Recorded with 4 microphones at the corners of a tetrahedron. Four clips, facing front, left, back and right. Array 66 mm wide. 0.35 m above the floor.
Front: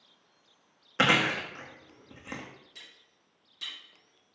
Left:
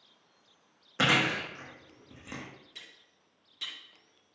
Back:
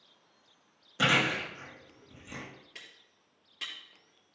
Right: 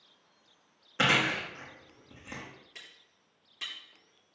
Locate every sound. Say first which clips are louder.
1.0 s chewing: even, front 2 dB; 5° left, 4 m
2.8 s cutlery clinking: even, back 2 dB; 155° right, 4 m